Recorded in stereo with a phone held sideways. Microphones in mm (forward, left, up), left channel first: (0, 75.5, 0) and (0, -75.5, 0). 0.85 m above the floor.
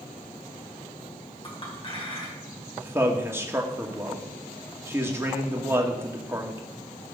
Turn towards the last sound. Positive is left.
turn(degrees=-15)  # may be behind; listen again after turning